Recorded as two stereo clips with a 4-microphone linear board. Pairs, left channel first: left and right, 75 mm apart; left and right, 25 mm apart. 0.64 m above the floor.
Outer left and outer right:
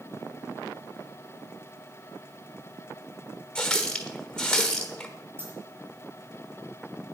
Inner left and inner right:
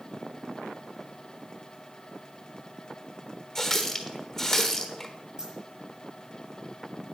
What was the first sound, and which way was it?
A running tap, 10° left (ahead or behind).